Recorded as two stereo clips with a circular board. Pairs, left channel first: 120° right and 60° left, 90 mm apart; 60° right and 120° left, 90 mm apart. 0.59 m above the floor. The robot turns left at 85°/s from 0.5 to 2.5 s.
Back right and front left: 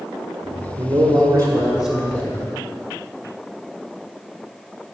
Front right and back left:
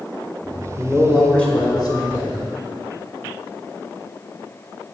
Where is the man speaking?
70° left, 1.5 m; by 2.5 s 80° right, 1.5 m.